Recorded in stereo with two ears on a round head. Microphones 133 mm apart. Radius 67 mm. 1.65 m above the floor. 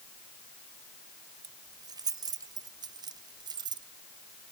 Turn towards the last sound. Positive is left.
turn(degrees=-30)  # may be behind; listen again after turning